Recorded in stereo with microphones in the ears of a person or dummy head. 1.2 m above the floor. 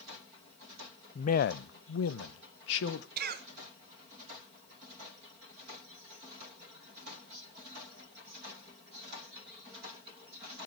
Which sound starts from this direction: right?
A cough, at 3.2 s.